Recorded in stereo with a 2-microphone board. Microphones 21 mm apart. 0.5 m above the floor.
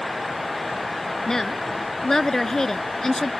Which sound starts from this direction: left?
A woman speaking, at 1.3 s.